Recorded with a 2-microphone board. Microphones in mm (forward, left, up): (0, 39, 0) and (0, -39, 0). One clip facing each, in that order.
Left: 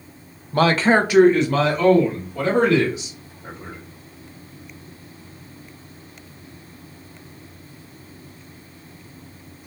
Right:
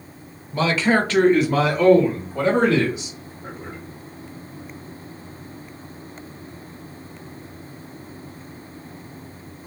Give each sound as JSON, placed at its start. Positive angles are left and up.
{"t": 0.5, "sound": "a man speaking", "side_deg": 65, "distance_m": 0.5}